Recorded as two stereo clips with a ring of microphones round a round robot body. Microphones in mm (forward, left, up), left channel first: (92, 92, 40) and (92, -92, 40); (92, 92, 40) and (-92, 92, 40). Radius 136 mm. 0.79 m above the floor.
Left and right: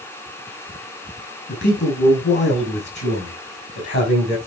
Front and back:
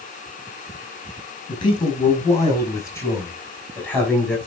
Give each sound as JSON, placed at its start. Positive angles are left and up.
{"t": 1.5, "sound": "a man speaking", "azimuth_deg": 65, "distance_m": 5.0}